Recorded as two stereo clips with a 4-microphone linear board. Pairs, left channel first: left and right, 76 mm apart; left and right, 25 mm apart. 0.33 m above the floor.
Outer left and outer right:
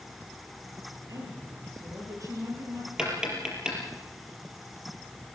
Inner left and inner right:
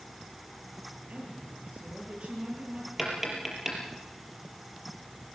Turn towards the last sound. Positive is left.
turn(degrees=-10)  # may be behind; listen again after turning